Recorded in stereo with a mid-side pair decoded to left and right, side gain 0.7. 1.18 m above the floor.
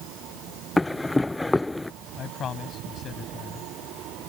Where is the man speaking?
35° left.